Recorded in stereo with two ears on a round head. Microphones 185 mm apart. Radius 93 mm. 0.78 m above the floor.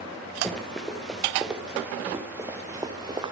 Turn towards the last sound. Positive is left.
turn(degrees=-25)  # may be behind; listen again after turning